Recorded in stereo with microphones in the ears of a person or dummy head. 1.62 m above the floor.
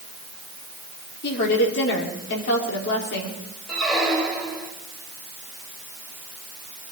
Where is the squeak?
5° left (ahead or behind), 3 m.